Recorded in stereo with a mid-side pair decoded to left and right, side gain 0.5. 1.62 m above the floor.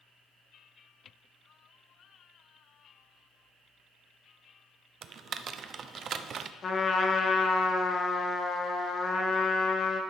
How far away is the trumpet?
About 1.4 m.